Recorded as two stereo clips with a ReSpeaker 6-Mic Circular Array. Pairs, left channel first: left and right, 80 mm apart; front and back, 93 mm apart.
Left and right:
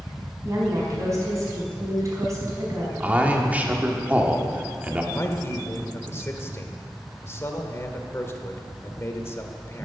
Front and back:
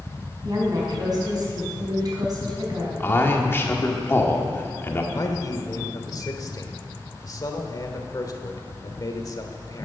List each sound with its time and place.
0.4 s a woman speaking: 135° right, 4.5 m
3.0 s a man speaking: 35° right, 1.4 m
5.1 s a man speaking: 40° left, 1.5 m